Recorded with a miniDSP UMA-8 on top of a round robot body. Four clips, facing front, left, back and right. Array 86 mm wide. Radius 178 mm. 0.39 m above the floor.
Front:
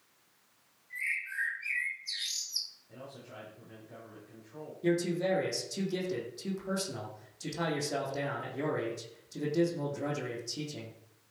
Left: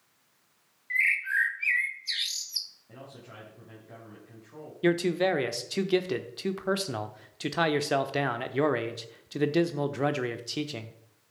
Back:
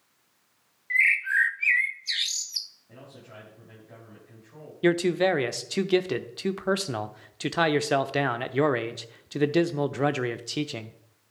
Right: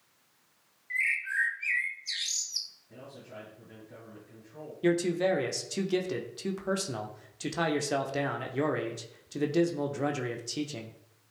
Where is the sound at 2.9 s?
115° left, 6.5 m.